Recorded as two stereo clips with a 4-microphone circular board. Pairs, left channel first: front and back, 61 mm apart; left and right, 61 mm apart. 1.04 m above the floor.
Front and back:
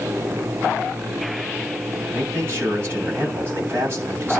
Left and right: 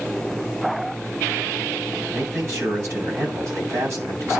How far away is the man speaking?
About 7.5 m.